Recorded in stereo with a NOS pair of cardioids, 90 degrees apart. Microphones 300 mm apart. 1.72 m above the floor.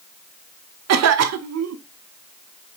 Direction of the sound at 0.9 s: 60° right.